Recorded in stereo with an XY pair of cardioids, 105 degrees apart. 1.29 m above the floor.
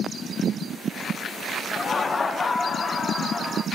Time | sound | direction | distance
1.7 | laughter | 30° left | 0.8 m